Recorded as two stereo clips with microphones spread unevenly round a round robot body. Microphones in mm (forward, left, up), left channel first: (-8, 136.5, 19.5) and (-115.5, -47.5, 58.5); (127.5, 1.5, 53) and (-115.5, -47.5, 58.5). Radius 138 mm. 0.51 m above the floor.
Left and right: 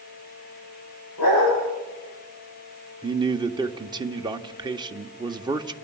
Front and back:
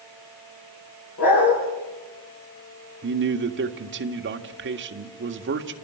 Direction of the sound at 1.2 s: 50° left.